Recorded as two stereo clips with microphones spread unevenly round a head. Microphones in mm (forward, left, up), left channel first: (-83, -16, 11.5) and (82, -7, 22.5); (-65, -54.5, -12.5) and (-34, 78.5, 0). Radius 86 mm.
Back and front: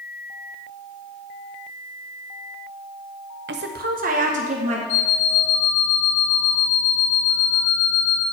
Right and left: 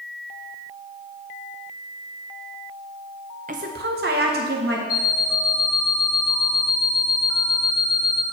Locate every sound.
3.5 s a woman speaking: 25° left, 0.8 m; by 4.8 s 55° left, 1.9 m
4.9 s an alarm clock: 165° right, 4 m